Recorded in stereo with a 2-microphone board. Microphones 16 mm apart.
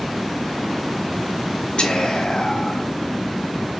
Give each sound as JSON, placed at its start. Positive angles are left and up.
{"t": 1.8, "sound": "whispering", "side_deg": 65, "distance_m": 0.6}